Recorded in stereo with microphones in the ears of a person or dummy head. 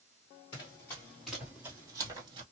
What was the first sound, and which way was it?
Running footsteps, 20° left (ahead or behind).